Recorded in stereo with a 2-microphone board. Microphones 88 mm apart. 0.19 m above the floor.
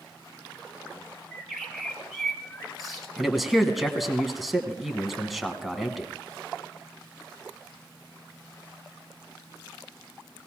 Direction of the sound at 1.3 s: Centre (ahead or behind).